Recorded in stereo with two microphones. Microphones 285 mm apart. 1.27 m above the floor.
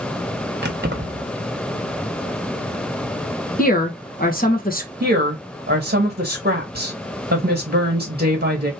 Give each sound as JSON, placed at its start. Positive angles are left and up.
{"t": 0.6, "sound": "keys jangling", "side_deg": -35, "distance_m": 1.1}
{"t": 3.6, "sound": "a woman speaking", "side_deg": 30, "distance_m": 1.3}
{"t": 5.0, "sound": "a woman speaking", "side_deg": -35, "distance_m": 1.7}